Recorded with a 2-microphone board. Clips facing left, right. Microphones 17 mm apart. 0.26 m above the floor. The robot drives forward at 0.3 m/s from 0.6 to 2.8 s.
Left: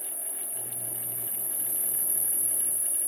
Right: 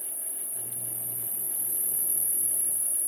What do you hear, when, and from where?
0.0 s an insect: 5° right (ahead or behind), 1.7 m; by 3.1 s 10° right (ahead or behind), 1.0 m